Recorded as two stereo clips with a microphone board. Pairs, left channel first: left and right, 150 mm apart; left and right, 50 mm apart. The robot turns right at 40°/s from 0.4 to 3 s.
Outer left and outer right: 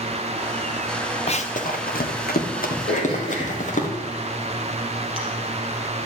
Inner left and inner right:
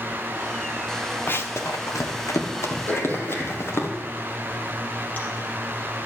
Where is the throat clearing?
45° left (ahead or behind), 4.5 m; by 5.2 s 40° left (ahead or behind), 4.5 m.